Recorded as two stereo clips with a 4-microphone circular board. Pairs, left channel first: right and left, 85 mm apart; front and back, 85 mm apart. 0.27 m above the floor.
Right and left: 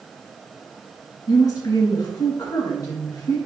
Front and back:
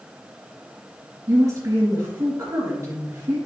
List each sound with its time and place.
1.3 s a woman speaking: 140° right, 2.5 m